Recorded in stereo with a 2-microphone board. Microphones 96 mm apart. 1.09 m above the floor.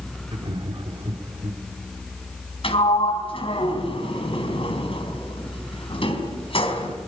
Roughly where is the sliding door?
Left.